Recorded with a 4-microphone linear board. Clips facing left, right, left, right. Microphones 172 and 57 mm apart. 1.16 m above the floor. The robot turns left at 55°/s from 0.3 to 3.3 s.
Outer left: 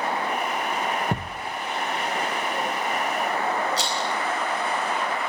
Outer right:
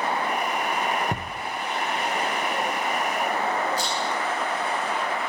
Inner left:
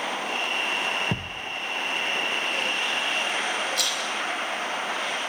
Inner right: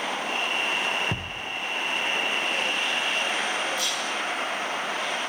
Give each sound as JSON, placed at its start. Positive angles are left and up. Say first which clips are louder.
{"t": 1.1, "sound": "a thud", "louder": "outer left 2 dB, inner left 1 dB", "side_deg": 10, "distance_m": 1.0}
{"t": 3.8, "sound": "a rattle", "louder": "even, even", "side_deg": 85, "distance_m": 5.0}